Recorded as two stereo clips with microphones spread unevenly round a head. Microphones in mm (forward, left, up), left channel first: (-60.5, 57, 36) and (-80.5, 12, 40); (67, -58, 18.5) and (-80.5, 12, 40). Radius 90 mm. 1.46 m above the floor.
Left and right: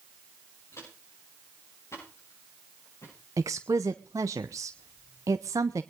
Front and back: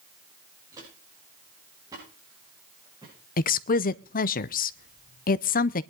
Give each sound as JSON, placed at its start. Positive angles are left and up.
{"t": 0.7, "sound": "footsteps", "azimuth_deg": 85, "distance_m": 7.0}
{"t": 3.4, "sound": "a woman speaking", "azimuth_deg": -65, "distance_m": 0.6}